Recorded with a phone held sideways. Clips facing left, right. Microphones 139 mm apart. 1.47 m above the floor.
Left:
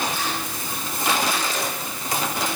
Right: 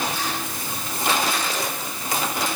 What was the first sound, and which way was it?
Only background noise.